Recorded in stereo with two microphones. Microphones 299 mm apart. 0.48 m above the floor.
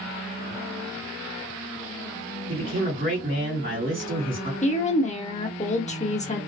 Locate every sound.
2.5 s a man speaking: 40° right (ahead or behind), 1.8 m
4.6 s a woman speaking: 25° left (ahead or behind), 0.8 m